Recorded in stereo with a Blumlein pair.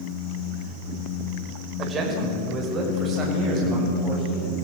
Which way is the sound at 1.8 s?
20° right.